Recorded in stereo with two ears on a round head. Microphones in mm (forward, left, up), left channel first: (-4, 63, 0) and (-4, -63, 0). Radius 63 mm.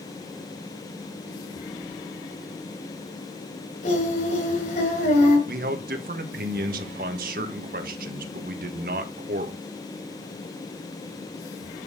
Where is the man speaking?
70° right (ahead or behind), 1.6 m.